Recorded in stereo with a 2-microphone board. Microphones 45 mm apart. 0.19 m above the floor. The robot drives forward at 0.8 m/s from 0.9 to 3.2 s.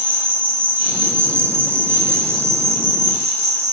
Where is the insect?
50° right (ahead or behind), 3 m; by 3.7 s 85° right, 2 m.